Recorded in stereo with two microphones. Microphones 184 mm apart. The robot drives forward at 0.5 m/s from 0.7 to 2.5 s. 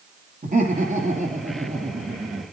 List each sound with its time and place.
0.4 s laughter: 45° right (ahead or behind), 4.5 m; by 2.4 s 40° right (ahead or behind), 5.5 m